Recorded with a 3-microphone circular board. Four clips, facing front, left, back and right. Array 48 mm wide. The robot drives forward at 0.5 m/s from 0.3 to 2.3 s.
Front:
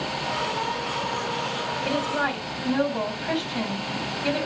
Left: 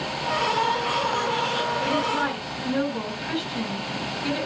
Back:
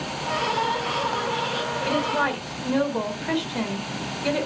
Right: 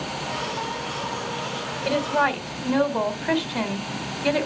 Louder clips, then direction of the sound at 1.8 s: Right 7 dB, back 2 dB; 100° right.